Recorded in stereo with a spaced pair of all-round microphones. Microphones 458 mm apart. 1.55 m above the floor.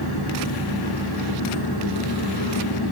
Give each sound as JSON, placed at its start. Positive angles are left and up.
{"t": 0.0, "sound": "an engine running", "side_deg": 55, "distance_m": 3.0}